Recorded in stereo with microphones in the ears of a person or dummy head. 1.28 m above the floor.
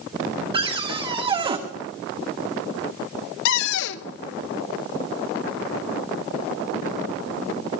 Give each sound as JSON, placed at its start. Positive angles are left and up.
{"t": 0.5, "sound": "a cupboard door", "side_deg": -30, "distance_m": 1.3}
{"t": 3.5, "sound": "a cupboard door", "side_deg": 65, "distance_m": 0.7}